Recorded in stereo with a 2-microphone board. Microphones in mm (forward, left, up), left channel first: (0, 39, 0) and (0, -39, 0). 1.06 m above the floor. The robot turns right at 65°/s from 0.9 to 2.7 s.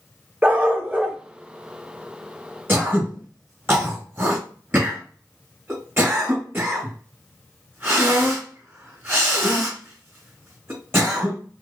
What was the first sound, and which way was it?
A dog barking, 15° right (ahead or behind).